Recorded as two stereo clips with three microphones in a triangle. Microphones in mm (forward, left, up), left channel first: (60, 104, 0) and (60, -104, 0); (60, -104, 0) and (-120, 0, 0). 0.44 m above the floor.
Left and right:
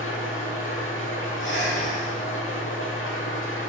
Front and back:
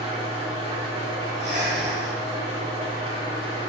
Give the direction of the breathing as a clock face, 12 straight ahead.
8 o'clock.